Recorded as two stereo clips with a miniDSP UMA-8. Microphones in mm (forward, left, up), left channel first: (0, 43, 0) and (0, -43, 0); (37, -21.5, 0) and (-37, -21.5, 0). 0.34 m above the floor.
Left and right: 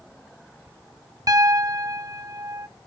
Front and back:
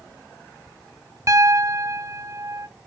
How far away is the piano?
About 0.5 m.